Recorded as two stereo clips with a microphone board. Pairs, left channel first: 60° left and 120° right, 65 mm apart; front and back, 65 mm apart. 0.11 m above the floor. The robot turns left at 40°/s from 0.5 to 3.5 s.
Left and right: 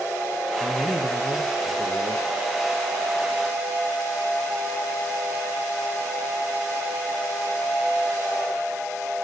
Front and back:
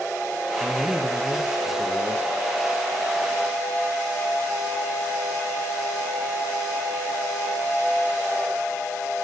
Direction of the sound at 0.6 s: 110° left.